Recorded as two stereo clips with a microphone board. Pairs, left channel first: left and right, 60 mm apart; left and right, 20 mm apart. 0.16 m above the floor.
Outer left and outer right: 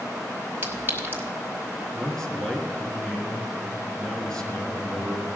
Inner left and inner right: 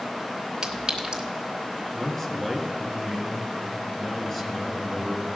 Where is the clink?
35° right (ahead or behind), 1.5 m.